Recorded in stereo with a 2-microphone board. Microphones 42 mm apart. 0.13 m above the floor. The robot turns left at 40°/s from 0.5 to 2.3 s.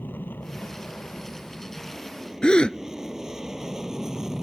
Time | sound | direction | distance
0.0 | an aircraft | 55° left | ?
2.4 | a gasp | 20° left (ahead or behind) | ?